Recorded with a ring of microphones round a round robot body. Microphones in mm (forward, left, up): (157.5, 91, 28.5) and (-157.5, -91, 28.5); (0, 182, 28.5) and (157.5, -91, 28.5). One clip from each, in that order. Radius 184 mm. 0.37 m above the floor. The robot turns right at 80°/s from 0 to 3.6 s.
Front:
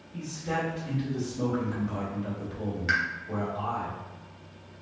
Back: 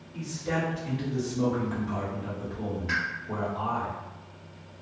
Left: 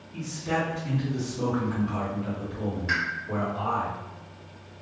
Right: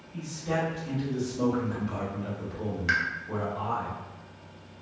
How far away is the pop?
About 0.8 m.